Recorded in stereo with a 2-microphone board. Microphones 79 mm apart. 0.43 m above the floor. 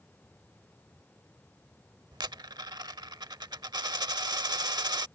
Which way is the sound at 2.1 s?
65° right (ahead or behind).